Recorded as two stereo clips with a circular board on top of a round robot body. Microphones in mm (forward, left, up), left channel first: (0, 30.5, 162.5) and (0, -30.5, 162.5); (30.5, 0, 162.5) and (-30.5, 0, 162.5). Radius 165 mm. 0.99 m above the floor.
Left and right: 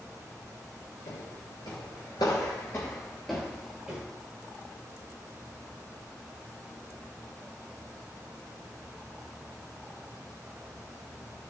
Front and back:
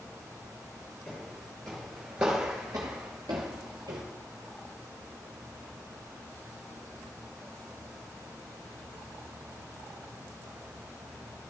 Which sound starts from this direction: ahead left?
Footsteps, at 1.1 s.